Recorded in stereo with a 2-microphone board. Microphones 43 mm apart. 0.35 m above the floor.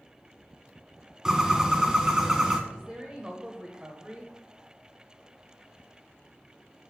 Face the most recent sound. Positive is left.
turn(degrees=-20)  # may be behind; listen again after turning